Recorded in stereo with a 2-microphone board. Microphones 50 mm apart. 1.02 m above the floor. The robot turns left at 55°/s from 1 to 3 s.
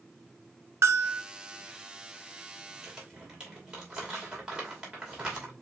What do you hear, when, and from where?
0.8 s a bell: 65° right (ahead or behind), 0.7 m; by 1.2 s 55° right (ahead or behind), 0.7 m
2.8 s crumpling: 5° right (ahead or behind), 2 m; by 5.5 s 15° right (ahead or behind), 2 m